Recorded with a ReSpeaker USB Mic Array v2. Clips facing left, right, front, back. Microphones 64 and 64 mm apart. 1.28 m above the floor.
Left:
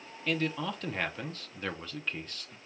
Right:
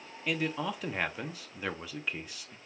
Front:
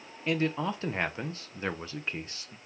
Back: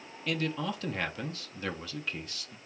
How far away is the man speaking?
About 0.6 m.